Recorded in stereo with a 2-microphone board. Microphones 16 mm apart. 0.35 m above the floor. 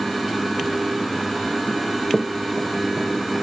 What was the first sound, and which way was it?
Running footsteps, 30° left (ahead or behind).